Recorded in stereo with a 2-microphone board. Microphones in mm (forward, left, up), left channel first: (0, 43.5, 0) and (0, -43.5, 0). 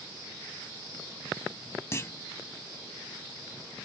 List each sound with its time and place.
1.9 s a clunk: 30° left (ahead or behind), 0.6 m